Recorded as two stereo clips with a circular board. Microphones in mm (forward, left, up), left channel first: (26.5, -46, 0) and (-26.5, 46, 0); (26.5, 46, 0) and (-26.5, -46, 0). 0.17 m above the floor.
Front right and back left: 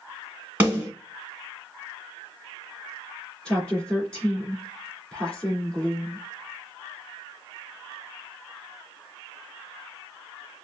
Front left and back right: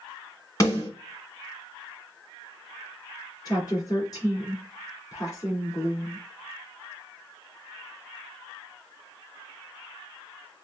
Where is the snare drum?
60° left, 1.9 m.